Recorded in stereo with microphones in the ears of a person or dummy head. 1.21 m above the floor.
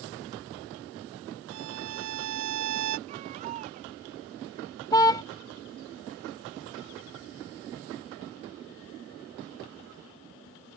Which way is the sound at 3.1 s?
35° right (ahead or behind).